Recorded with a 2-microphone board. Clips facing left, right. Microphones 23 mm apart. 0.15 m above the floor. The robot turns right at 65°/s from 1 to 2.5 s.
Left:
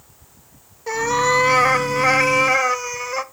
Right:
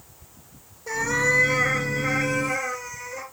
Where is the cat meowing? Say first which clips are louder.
Left 4 dB; 30° left, 0.6 m; by 3.2 s 130° left, 0.6 m.